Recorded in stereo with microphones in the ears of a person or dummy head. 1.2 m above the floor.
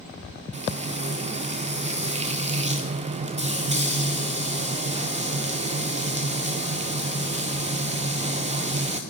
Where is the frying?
35° right (ahead or behind), 1.0 m.